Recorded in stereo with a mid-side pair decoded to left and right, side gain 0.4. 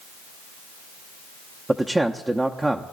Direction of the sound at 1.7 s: 20° right.